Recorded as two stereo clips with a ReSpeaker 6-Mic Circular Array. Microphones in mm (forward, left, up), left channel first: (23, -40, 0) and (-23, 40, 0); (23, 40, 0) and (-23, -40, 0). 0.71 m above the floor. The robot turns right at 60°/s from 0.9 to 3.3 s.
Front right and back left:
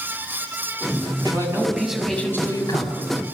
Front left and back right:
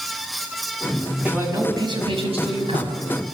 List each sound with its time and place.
1.2 s a man speaking: 165° left, 5.5 m; by 3.0 s 90° right, 5.5 m